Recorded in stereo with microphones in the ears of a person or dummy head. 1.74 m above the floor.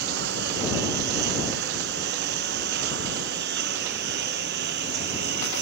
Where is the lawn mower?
65° right (ahead or behind).